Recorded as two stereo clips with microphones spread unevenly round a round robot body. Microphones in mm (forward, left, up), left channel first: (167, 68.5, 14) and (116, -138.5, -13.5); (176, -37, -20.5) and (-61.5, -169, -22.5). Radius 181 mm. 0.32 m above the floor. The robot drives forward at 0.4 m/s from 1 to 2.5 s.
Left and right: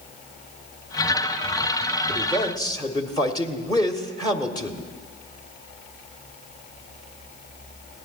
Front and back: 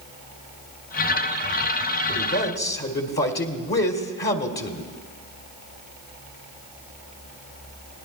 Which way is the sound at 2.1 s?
Straight ahead.